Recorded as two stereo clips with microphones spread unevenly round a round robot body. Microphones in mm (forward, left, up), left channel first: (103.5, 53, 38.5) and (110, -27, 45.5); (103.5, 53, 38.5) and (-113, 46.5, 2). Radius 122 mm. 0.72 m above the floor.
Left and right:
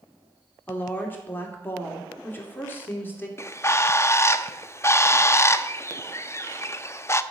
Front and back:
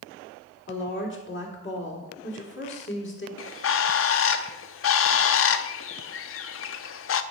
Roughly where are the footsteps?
I don't hear footsteps.